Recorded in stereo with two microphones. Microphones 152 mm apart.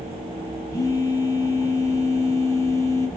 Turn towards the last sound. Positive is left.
turn(degrees=20)  # may be behind; listen again after turning